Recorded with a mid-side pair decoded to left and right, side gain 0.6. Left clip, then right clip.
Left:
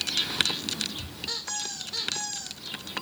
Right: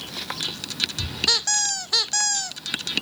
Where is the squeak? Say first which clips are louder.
Right 12 dB; 60° right, 0.5 m.